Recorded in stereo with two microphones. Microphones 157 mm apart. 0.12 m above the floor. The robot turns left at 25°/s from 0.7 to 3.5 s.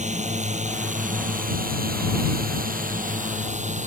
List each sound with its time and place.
0.0 s a drone: 50° right (ahead or behind)